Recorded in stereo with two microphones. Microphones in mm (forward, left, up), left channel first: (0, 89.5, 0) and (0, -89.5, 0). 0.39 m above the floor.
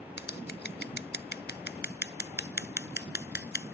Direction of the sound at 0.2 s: 75° left (ahead or behind).